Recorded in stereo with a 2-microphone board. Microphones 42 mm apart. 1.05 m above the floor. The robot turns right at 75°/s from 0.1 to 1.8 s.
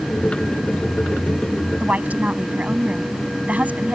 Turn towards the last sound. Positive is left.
turn(degrees=-35)  # may be behind; listen again after turning